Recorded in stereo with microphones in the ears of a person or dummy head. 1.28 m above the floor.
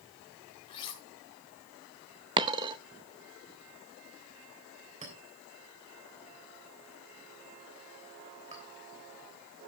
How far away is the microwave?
No microwave in this recording.